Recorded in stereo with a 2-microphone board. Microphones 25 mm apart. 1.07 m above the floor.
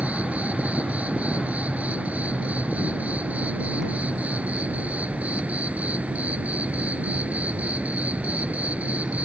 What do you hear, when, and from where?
0.0 s an insect: 65° right (ahead or behind)